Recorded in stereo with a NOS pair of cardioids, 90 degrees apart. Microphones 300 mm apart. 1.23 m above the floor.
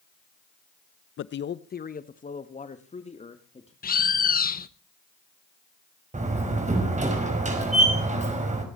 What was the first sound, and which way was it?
A man speaking, 45° left.